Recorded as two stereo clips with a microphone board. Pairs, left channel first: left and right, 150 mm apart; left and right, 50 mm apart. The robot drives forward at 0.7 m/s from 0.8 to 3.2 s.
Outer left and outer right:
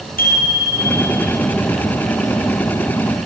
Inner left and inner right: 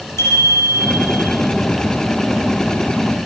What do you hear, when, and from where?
0.2 s a bicycle bell: 80° left, 4.5 m; by 1.3 s 75° left (ahead or behind), 4.5 m